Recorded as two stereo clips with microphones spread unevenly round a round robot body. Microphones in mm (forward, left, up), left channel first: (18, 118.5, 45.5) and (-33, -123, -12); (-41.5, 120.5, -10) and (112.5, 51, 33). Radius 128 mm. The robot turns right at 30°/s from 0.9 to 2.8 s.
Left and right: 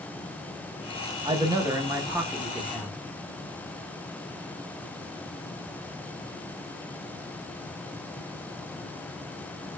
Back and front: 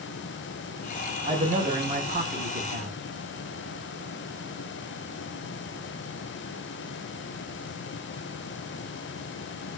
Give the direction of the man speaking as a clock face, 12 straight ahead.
3 o'clock.